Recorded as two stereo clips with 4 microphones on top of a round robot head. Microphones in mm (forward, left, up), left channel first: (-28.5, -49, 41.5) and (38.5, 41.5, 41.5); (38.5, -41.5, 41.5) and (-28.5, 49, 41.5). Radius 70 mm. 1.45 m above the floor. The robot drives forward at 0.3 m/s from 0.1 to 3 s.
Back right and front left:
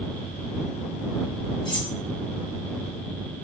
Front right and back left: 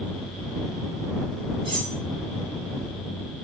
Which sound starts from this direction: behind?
Cutlery clinking, at 1.6 s.